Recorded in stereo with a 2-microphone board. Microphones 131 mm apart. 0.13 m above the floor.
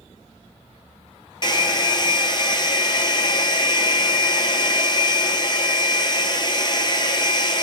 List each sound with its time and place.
1.4 s a hair dryer: 35° left (ahead or behind), 0.8 m